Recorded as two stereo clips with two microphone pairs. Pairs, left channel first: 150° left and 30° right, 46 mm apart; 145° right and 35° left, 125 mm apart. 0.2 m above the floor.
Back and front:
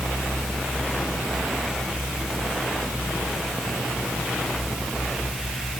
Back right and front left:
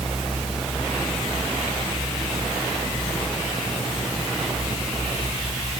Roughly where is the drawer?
I don't hear a drawer.